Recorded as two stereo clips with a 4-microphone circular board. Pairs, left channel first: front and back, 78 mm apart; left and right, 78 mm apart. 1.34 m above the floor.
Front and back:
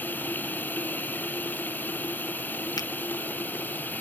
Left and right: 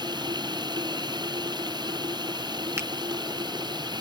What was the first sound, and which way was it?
Running water, 65° right.